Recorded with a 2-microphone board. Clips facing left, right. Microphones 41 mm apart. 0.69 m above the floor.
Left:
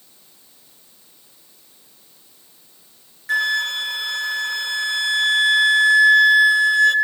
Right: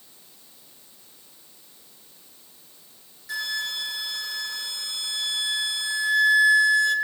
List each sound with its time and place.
3.3 s a flute: 55° left (ahead or behind), 1.7 m